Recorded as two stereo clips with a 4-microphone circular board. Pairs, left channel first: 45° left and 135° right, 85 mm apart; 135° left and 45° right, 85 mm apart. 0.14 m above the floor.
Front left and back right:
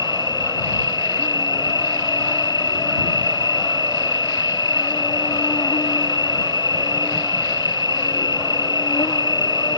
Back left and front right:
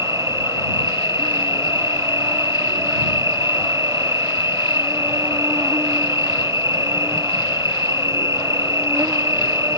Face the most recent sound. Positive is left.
turn(degrees=10)